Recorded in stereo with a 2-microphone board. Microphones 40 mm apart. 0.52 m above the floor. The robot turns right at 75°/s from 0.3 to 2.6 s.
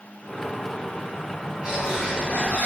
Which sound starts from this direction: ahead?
A bird, at 1.6 s.